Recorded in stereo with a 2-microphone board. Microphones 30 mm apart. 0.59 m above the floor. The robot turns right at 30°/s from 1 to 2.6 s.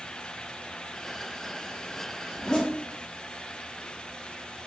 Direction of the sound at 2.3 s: 30° left (ahead or behind).